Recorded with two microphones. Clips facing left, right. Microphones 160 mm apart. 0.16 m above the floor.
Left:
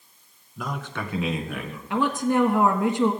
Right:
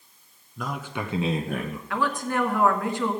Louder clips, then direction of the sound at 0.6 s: Even; 5° left (ahead or behind).